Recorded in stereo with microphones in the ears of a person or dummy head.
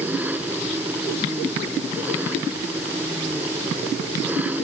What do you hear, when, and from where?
0.0 s an engine running: 5° right (ahead or behind)